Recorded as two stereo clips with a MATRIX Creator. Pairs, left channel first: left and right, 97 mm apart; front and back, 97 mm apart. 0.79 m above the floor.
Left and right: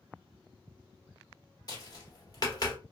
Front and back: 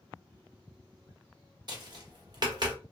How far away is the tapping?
About 0.9 m.